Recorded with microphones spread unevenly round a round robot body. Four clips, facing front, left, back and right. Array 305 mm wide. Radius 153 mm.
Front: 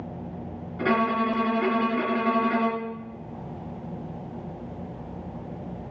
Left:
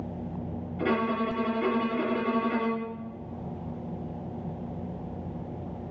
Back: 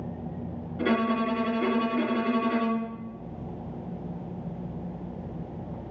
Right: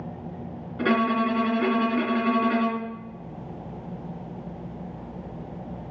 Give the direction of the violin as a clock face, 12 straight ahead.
2 o'clock.